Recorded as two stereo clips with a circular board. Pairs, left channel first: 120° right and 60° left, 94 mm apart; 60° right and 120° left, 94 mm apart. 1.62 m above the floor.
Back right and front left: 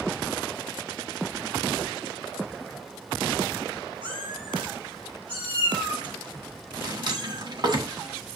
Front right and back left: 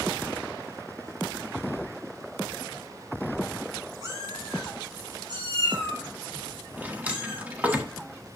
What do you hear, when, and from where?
4.0 s a cat meowing: 70° left, 3.5 m; by 7.8 s 100° left, 5.5 m
6.8 s a drawer: 50° left, 1.3 m